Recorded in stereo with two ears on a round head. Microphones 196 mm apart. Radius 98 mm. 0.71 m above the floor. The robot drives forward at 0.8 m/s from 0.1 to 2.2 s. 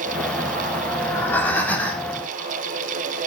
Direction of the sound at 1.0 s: 10° left (ahead or behind).